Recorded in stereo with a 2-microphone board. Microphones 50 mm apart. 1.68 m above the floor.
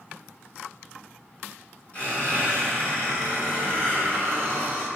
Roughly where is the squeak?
Left.